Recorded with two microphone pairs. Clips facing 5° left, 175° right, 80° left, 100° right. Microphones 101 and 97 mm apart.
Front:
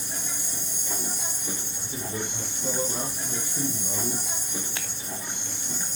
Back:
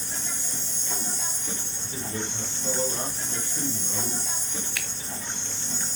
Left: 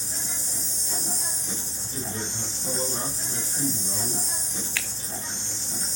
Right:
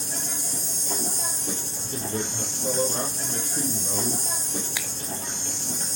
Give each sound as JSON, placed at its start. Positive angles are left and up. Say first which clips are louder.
{"t": 0.0, "sound": "an insect", "louder": "even, right 4 dB", "azimuth_deg": -70, "distance_m": 6.0}
{"t": 1.8, "sound": "a man speaking", "louder": "even, right 4 dB", "azimuth_deg": -65, "distance_m": 4.5}
{"t": 4.8, "sound": "a finger snap", "louder": "even, even", "azimuth_deg": -35, "distance_m": 1.2}